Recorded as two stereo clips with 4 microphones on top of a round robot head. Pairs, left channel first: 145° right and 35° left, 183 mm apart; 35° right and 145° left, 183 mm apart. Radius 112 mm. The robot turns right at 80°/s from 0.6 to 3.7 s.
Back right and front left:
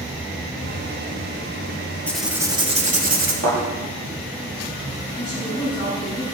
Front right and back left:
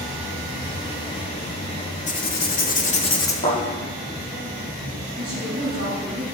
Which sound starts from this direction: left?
A woman speaking, at 5.2 s.